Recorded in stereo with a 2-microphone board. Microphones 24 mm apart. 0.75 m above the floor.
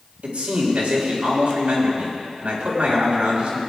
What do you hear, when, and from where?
0.2 s a man speaking: 70° right (ahead or behind), 4 m